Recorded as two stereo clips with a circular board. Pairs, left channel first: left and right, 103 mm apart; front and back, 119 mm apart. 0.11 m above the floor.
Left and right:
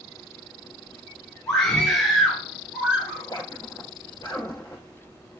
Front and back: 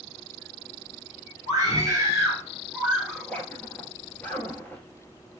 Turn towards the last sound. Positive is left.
turn(degrees=70)